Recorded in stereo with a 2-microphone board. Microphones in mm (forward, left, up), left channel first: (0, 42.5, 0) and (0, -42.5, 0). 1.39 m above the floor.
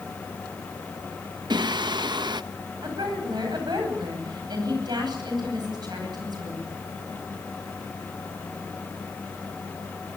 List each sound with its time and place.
1.5 s singing: 60° right (ahead or behind), 0.8 m
2.8 s a woman speaking: 55° right (ahead or behind), 10 m